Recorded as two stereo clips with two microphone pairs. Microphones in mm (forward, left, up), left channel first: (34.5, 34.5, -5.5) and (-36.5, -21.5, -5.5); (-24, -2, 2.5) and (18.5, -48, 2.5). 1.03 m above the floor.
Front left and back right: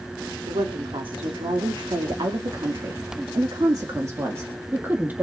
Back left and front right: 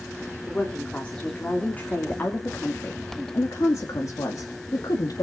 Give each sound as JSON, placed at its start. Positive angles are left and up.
{"t": 0.5, "sound": "a woman speaking", "azimuth_deg": -155, "distance_m": 3.5}